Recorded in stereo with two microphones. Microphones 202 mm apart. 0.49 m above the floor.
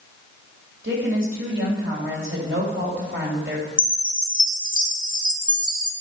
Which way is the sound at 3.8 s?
40° left (ahead or behind).